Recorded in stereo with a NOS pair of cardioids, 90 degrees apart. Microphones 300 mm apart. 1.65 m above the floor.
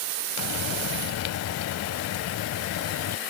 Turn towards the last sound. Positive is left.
turn(degrees=65)